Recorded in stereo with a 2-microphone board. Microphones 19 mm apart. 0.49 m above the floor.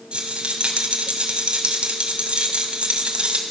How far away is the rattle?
About 2 m.